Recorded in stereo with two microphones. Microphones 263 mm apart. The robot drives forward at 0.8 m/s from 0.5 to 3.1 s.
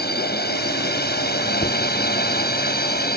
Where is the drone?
35° left (ahead or behind).